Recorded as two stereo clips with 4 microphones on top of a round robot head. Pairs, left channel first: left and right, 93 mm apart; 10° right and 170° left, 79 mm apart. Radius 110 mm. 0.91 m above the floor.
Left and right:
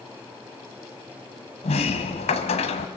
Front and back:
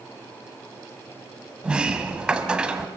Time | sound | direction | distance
1.6 | a sliding door | 90° left | 1.5 m